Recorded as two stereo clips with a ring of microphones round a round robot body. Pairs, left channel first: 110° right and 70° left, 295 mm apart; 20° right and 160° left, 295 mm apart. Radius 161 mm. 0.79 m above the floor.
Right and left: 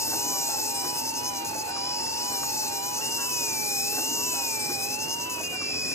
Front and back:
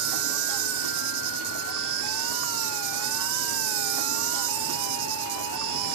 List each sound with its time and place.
0.0 s an insect: 165° left